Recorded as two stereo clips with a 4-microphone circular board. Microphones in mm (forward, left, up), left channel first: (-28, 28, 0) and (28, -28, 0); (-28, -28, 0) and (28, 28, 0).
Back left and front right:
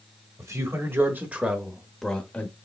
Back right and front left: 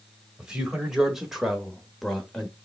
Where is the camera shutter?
No camera shutter in this recording.